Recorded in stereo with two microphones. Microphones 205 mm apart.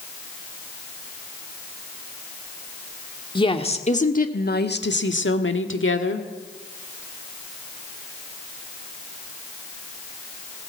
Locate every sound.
3.4 s a woman speaking: 25° left (ahead or behind), 1.9 m; by 6.3 s 70° left (ahead or behind), 2 m